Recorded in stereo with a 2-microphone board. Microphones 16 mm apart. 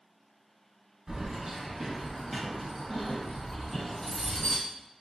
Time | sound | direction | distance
1.1 | keys jangling | 25° right (ahead or behind) | 1.4 m